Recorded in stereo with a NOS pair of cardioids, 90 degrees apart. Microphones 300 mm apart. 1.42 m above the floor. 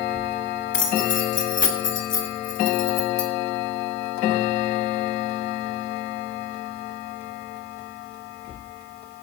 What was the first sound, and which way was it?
Keys jangling, 40° left.